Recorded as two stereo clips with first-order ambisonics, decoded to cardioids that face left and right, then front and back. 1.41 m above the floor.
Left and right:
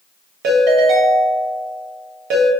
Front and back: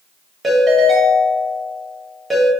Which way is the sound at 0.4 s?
100° right.